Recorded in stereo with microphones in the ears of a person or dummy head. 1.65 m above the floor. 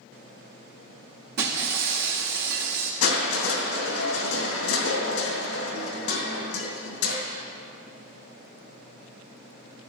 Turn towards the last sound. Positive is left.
turn(degrees=75)  # may be behind; listen again after turning